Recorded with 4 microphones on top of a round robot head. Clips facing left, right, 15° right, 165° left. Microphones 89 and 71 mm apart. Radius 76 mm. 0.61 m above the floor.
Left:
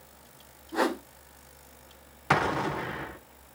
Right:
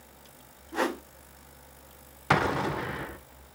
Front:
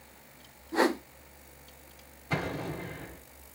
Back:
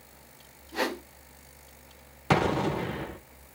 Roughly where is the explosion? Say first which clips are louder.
Even, back 9 dB; behind.